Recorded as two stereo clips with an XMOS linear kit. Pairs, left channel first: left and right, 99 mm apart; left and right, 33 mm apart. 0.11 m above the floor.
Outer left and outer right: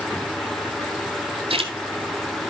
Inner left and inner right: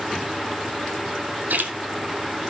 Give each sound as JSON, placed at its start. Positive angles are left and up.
{"t": 1.5, "sound": "a splash", "side_deg": -70, "distance_m": 0.9}